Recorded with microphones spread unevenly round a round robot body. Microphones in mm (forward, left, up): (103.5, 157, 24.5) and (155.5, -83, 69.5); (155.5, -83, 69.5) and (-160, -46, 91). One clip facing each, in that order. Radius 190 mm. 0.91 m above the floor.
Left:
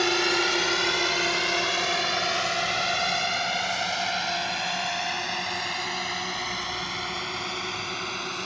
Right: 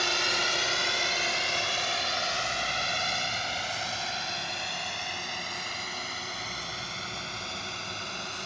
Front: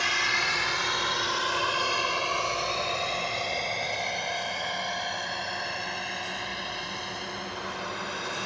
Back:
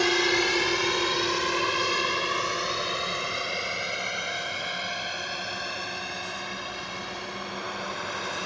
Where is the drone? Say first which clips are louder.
Left 9 dB, back 13 dB; 125° left; by 8.5 s 85° left.